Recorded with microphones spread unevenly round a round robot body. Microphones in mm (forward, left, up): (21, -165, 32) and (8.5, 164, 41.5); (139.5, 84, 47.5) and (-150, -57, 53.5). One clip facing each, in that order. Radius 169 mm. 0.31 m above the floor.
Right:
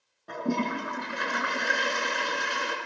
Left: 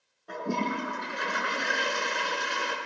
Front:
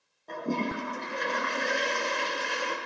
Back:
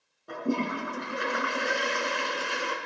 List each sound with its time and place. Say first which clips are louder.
0.3 s a toilet flushing: right 2 dB, back 2 dB; 75° right, 4.5 m